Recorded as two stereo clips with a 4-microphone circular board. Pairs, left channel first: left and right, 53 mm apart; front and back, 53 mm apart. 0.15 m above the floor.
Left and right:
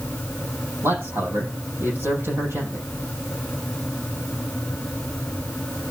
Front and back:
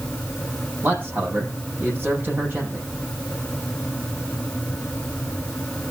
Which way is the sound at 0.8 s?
130° right.